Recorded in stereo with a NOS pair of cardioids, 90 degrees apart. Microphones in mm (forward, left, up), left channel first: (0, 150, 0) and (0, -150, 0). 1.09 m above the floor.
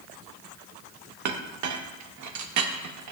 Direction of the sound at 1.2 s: 65° right.